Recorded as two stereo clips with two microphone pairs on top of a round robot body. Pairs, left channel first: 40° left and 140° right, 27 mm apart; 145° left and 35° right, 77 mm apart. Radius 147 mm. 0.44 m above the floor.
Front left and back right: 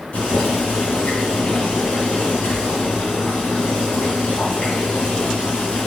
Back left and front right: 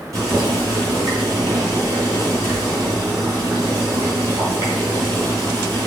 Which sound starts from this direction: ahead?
Boiling, at 0.1 s.